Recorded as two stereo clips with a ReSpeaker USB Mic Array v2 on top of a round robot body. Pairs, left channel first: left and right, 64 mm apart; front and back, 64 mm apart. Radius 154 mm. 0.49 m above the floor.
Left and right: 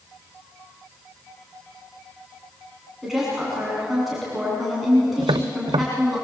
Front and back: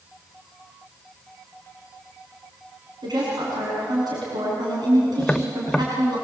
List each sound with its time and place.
3.0 s a woman speaking: straight behind, 6.5 m
5.2 s tapping: 80° right, 0.5 m